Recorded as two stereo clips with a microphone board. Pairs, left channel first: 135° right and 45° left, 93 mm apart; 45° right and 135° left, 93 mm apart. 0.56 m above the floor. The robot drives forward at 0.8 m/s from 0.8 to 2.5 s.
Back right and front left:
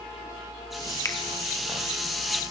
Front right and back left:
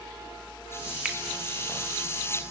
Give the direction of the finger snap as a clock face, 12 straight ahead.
5 o'clock.